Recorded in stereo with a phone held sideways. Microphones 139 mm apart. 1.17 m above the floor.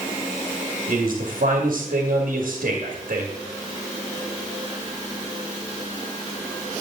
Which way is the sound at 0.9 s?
80° right.